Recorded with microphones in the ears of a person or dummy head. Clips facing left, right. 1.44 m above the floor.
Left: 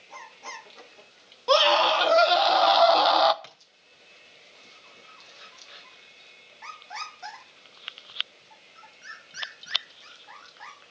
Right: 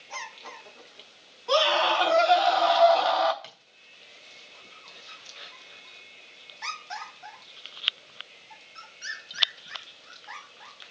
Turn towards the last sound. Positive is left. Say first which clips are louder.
# right 2 dB
turn(degrees=30)  # may be behind; listen again after turning